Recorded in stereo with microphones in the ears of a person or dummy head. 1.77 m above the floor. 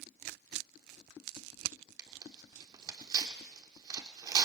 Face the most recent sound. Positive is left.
turn(degrees=-25)  # may be behind; listen again after turning